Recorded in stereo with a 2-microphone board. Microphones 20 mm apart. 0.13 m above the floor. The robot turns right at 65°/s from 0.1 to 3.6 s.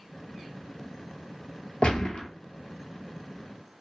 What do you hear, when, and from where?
1.8 s a gunshot: 100° left, 0.7 m; by 2.3 s 135° left, 0.7 m